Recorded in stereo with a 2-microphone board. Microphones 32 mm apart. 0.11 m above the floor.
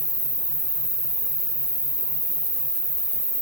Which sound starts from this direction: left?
An insect, at 0.0 s.